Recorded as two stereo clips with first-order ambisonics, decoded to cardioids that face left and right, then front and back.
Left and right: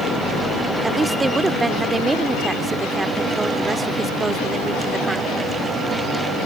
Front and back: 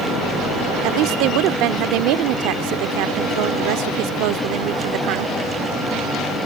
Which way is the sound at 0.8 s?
170° right.